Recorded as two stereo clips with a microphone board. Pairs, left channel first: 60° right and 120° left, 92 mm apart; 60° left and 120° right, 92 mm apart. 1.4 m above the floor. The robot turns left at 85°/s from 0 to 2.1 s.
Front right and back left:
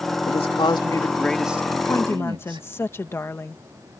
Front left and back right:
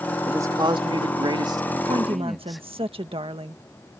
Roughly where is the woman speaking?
Right.